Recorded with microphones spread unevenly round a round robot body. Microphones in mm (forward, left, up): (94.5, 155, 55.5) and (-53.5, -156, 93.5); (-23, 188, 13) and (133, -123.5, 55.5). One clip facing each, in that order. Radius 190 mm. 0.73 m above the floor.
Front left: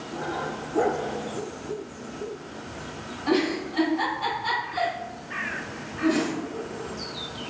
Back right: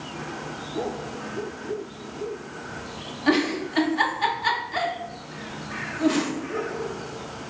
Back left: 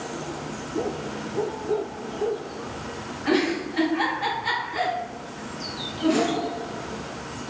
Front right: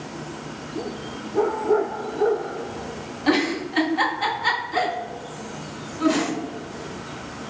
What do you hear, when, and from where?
3.3 s a giggle: 95° right, 1.1 m